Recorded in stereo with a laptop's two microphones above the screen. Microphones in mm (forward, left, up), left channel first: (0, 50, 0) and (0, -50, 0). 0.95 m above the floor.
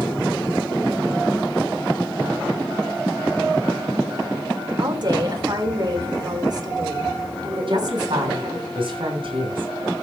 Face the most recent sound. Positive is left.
turn(degrees=-60)  # may be behind; listen again after turning